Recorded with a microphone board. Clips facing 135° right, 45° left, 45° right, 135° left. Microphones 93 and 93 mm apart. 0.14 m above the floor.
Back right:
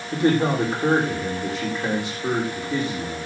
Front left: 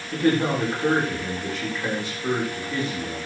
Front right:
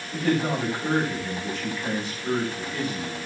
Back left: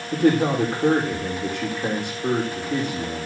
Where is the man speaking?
150° left, 7.5 m.